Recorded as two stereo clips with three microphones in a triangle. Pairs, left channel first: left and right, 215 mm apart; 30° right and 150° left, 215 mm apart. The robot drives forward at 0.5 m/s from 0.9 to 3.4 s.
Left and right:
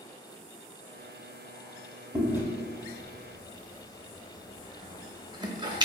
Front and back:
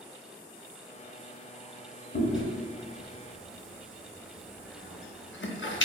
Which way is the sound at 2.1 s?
10° right.